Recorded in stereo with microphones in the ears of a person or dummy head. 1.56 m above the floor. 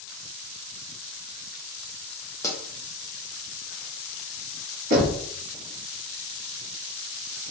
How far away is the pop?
About 0.7 m.